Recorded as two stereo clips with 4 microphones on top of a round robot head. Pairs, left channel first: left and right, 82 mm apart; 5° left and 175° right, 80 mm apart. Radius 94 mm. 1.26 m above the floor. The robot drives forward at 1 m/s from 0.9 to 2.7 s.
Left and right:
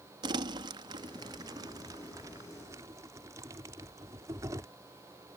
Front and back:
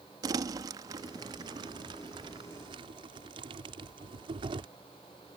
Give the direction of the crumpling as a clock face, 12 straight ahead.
4 o'clock.